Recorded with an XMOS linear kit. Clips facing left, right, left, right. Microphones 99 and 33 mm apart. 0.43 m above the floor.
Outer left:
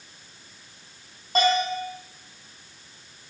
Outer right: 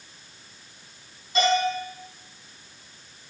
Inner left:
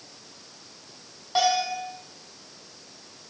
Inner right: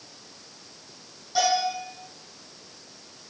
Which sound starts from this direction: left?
A bell, at 1.4 s.